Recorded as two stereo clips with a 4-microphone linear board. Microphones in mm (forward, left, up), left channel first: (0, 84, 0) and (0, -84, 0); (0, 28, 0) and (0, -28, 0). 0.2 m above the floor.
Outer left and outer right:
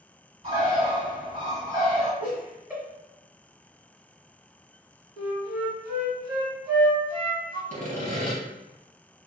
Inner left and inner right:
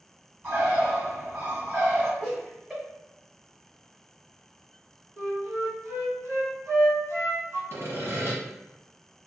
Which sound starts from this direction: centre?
Laughter, at 2.2 s.